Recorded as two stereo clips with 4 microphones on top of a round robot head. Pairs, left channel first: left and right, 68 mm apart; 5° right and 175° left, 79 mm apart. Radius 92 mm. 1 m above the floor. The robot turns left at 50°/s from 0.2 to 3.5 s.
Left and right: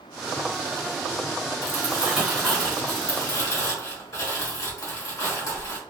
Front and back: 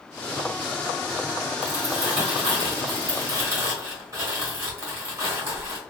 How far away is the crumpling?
About 1.5 m.